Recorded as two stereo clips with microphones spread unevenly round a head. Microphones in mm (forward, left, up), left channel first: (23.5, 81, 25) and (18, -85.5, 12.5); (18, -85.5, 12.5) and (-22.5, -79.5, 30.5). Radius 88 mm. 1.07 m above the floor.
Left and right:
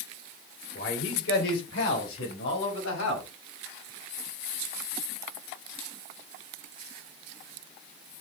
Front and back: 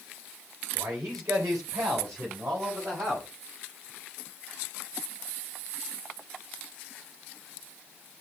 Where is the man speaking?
120° left, 3.5 m; by 3.3 s 100° left, 5.5 m.